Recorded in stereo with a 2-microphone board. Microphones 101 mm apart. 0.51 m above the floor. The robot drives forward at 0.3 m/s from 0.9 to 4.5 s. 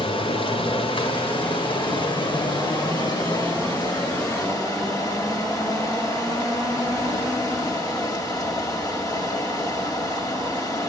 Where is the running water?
55° left (ahead or behind), 1.4 m; by 10.9 s 35° left (ahead or behind), 2 m.